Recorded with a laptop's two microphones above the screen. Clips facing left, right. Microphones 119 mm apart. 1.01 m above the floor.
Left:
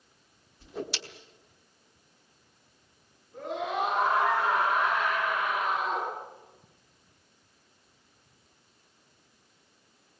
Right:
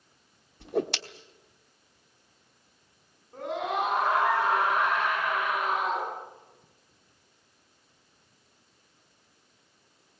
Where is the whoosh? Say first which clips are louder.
Right 8 dB; 65° right (ahead or behind), 1.1 m.